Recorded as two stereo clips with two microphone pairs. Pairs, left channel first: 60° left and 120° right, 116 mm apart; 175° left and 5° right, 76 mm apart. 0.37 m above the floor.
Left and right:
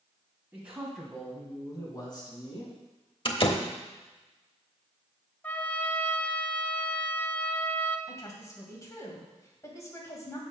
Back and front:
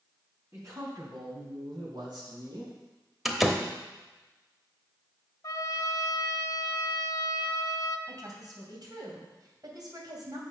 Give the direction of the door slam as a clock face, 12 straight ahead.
9 o'clock.